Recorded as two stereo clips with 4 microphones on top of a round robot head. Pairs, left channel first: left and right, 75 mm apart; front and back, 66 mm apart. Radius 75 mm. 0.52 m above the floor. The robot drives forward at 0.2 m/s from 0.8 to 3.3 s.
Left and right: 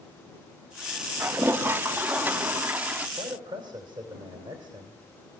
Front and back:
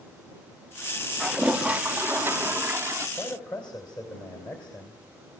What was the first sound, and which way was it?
A toilet flushing, 115° right.